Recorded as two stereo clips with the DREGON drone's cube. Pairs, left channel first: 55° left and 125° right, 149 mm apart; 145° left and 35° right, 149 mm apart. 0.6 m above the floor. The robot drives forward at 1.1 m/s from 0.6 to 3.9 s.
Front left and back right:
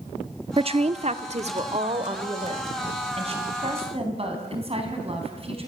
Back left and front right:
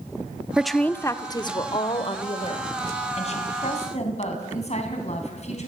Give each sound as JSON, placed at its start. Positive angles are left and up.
{"t": 0.6, "sound": "a woman speaking", "azimuth_deg": -120, "distance_m": 0.8}